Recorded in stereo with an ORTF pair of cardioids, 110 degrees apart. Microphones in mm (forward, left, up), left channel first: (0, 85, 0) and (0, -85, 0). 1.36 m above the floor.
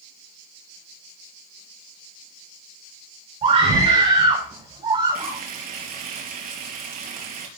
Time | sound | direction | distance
3.4 | a scream | 40° right | 5.5 m
5.2 | frying | 65° right | 4.5 m